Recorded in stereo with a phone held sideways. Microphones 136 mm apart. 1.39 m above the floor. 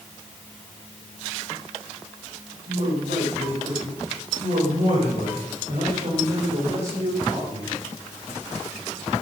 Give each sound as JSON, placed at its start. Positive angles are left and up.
{"t": 2.7, "sound": "a man speaking", "side_deg": -70, "distance_m": 7.0}